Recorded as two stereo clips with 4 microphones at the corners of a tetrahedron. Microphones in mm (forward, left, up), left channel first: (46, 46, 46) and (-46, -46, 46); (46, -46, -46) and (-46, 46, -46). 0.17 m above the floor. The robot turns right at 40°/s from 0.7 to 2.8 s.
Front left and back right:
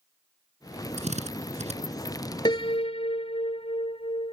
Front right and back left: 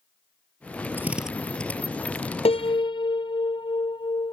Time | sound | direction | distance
1.0 | a drill | 150° right | ?
2.5 | a piano | 10° right | ?